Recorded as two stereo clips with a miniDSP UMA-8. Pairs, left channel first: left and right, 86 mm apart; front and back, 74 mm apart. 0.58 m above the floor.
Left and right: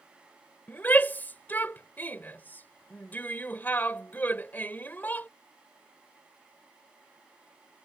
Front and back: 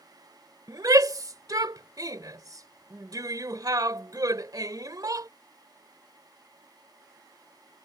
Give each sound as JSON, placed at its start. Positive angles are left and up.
{"t": 0.7, "sound": "a shout", "azimuth_deg": 155}